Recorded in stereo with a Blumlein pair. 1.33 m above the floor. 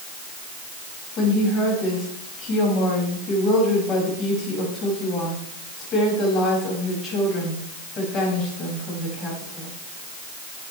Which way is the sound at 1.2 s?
25° left.